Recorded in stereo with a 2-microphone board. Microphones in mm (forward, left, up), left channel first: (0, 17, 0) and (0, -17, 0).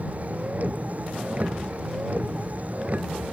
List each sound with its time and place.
0.0 s a vehicle: 45° right (ahead or behind)